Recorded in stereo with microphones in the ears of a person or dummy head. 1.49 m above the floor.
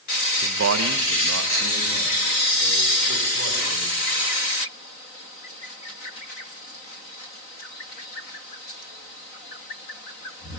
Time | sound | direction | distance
0.4 | a man speaking | 60° right (ahead or behind) | 1.2 m